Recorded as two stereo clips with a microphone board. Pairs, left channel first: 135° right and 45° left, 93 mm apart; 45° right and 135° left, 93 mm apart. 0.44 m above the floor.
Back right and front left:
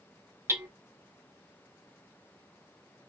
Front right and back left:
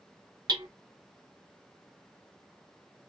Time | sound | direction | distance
0.5 | hammering | 100° left | 0.9 m